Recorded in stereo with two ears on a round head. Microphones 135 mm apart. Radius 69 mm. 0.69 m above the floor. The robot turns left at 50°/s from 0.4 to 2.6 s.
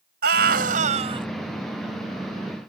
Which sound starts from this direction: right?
A scream, at 0.2 s.